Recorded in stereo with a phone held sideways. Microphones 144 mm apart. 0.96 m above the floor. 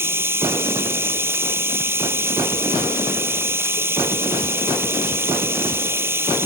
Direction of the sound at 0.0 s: 15° right (ahead or behind).